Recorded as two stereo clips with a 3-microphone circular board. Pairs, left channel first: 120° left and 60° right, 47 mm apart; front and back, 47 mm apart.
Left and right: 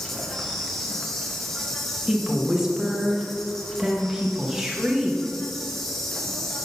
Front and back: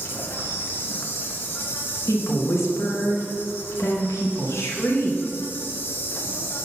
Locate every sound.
0.0 s an insect: 40° left, 0.8 m
2.1 s a woman speaking: 20° left, 1.3 m